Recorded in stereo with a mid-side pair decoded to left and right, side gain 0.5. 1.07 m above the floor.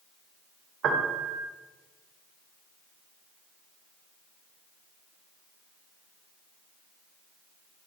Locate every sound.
0.8 s a piano: 60° right, 1.0 m